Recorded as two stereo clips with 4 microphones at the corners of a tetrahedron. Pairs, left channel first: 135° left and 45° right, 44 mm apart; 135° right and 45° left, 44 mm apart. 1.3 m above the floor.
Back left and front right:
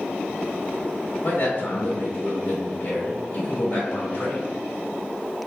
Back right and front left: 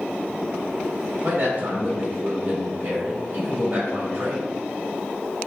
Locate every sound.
1.2 s a man speaking: 105° left, 1.7 m